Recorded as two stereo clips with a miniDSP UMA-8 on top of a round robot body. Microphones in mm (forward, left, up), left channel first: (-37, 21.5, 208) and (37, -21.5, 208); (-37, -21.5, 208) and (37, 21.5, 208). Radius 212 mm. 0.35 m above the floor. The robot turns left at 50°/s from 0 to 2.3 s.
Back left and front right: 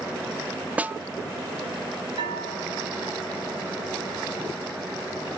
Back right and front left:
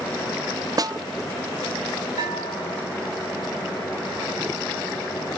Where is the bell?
5° right, 2.5 m; by 2.9 s 10° right, 2.5 m.